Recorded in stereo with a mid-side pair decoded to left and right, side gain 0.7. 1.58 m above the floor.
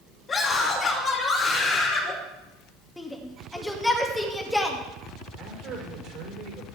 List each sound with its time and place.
0.3 s a scream: 30° left, 6 m
3.0 s a shout: 10° left, 2.5 m
5.4 s a man speaking: 55° right, 5 m